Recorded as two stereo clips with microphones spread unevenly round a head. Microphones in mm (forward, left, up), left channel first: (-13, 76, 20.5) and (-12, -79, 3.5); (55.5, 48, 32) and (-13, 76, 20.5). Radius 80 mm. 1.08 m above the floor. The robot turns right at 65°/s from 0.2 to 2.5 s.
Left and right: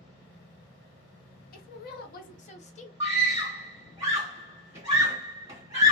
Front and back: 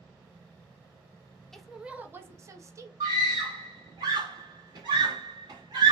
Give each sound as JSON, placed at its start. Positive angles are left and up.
{"t": 1.5, "sound": "a woman speaking", "azimuth_deg": 65, "distance_m": 0.6}
{"t": 3.0, "sound": "a scream", "azimuth_deg": -155, "distance_m": 1.4}